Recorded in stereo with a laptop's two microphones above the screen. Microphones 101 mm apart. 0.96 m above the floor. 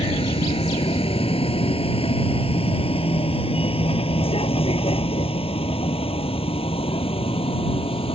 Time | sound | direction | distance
0.0 | a vehicle | 85° left | ?